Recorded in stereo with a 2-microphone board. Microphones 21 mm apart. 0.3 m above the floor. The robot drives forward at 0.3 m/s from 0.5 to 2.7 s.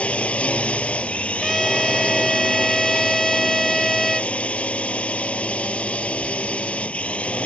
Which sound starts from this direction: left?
A drone, at 0.0 s.